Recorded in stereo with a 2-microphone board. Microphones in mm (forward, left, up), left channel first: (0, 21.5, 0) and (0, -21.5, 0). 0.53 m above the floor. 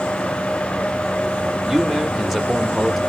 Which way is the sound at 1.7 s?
Centre (ahead or behind).